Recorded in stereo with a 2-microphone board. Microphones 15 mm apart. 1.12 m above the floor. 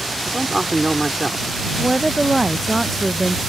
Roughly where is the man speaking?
Right.